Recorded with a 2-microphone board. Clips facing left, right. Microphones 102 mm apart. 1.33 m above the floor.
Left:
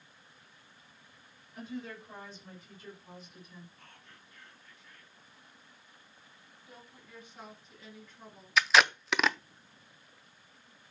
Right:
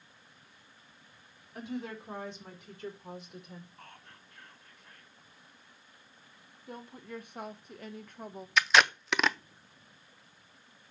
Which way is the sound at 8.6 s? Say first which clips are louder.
Even; centre (ahead or behind).